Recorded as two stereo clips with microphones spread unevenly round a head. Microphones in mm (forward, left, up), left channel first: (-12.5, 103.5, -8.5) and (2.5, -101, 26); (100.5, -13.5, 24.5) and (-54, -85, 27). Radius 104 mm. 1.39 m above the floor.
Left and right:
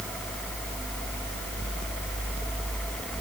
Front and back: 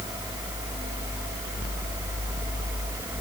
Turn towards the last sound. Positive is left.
No sound to turn to.